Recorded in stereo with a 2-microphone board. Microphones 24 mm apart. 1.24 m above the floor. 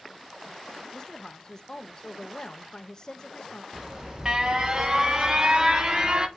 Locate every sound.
0.9 s a woman speaking: 30° left (ahead or behind), 1.2 m
3.7 s an alarm: 35° right (ahead or behind), 1.3 m